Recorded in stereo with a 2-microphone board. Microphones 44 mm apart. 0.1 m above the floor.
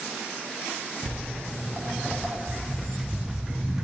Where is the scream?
No scream in this recording.